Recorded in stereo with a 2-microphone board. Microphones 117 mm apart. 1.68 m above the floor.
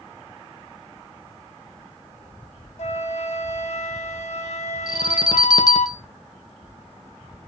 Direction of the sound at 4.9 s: 35° left (ahead or behind).